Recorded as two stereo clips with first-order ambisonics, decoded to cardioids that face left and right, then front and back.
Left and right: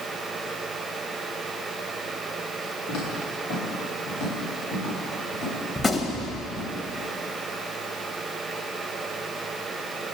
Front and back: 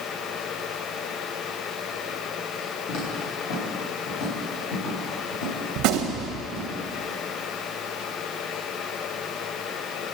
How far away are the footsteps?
About 5 m.